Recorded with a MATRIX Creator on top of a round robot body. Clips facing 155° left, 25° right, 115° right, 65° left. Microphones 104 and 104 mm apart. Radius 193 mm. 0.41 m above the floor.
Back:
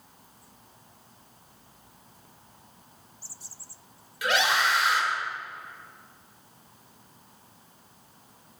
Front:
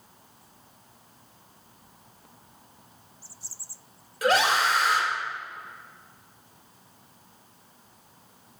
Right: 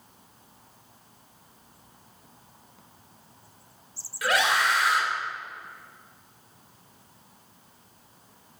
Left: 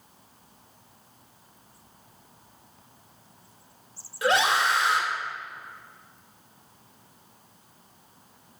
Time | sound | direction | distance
4.2 | a scream | 10° left | 2.5 m